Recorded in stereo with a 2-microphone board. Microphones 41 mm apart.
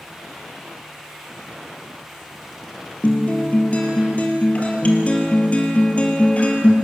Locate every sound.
3.0 s a guitar: 35° left (ahead or behind), 3 m